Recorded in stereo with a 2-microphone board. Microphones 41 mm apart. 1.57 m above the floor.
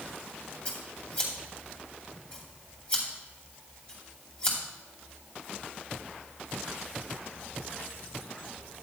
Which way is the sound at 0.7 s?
30° left (ahead or behind).